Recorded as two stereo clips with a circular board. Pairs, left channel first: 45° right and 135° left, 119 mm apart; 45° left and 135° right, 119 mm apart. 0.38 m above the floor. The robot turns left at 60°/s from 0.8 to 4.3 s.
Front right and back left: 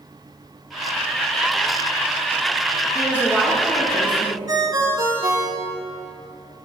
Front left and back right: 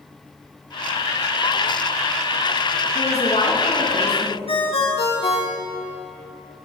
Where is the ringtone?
80° left, 3.5 m.